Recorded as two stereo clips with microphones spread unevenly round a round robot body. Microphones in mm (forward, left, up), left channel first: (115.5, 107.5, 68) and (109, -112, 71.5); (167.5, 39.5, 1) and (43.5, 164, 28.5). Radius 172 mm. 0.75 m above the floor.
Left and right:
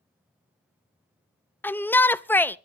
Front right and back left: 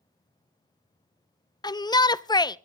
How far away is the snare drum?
I don't hear a snare drum.